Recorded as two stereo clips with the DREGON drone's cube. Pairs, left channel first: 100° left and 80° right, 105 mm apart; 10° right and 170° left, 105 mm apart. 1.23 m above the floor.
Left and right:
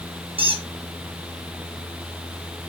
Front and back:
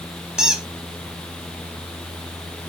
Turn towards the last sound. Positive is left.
turn(degrees=-105)